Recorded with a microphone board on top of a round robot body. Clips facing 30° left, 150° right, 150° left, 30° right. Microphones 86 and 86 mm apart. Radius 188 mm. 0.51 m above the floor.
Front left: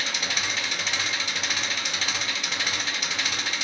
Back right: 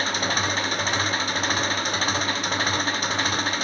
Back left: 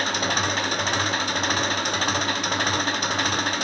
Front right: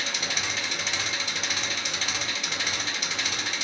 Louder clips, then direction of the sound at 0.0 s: Back right 6 dB, back left 8 dB; 170° left.